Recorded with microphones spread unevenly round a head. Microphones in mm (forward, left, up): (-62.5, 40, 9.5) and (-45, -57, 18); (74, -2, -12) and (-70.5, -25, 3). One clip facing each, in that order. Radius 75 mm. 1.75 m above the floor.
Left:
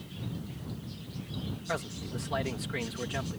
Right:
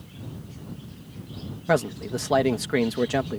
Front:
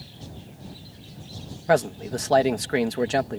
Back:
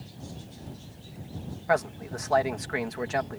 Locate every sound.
1.7 s a man speaking: 45° right